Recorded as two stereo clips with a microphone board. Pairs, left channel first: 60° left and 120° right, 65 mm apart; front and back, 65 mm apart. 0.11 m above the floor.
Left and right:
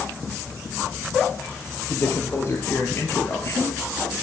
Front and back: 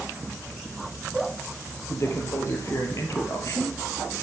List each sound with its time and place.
1.9 s a man speaking: 25° left, 1.8 m